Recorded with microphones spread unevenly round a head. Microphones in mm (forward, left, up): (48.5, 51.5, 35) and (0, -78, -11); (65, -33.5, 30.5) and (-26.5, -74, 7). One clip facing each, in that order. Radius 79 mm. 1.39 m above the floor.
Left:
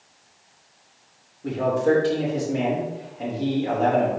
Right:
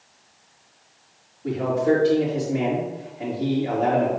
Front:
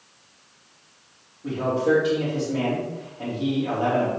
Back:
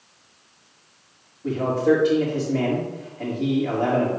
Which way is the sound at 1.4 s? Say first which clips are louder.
Even, back 2 dB; 115° left.